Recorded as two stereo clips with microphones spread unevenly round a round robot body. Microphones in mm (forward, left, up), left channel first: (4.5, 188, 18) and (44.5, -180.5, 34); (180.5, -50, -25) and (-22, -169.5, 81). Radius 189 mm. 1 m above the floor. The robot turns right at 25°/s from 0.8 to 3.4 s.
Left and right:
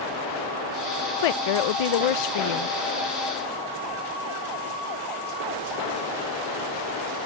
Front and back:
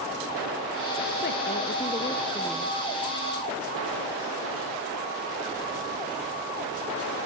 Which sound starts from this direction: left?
A woman speaking, at 1.2 s.